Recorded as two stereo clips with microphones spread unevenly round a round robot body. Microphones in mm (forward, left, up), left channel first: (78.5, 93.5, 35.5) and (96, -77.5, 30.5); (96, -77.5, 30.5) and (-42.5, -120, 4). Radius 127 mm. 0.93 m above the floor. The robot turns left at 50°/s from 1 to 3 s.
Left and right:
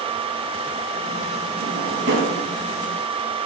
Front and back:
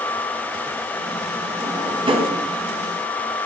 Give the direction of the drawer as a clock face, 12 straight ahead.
3 o'clock.